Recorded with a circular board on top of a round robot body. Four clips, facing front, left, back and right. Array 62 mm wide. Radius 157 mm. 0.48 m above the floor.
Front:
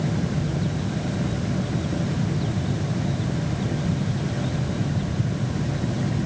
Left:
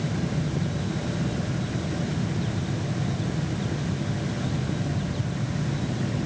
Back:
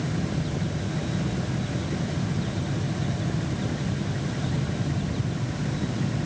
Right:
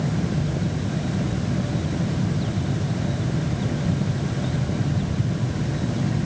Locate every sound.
Only background noise.